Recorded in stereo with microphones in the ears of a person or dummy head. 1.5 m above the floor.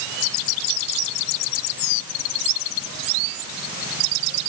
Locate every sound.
Only background noise.